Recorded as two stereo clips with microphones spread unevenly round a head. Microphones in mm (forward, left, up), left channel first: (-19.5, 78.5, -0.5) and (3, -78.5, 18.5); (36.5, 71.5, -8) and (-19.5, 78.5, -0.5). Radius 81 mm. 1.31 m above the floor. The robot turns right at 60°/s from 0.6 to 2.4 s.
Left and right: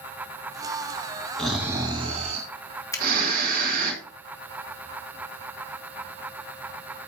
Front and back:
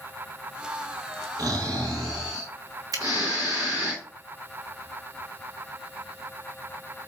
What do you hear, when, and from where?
1.4 s snoring: 175° right, 4.5 m; by 3.9 s 115° right, 4.5 m
2.9 s a finger snap: 170° left, 2 m